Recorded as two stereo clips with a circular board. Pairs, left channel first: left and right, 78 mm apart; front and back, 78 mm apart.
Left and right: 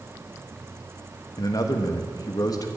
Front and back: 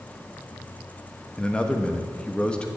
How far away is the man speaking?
About 1.2 m.